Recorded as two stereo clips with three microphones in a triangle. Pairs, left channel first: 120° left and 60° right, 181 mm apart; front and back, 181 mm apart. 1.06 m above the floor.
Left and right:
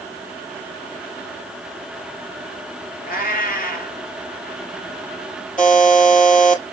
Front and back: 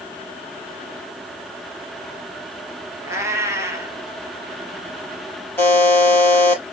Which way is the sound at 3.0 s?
110° left.